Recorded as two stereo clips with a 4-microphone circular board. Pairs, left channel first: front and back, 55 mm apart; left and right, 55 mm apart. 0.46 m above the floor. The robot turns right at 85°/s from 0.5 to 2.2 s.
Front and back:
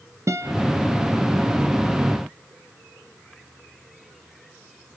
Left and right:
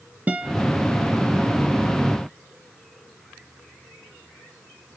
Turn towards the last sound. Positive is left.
turn(degrees=-10)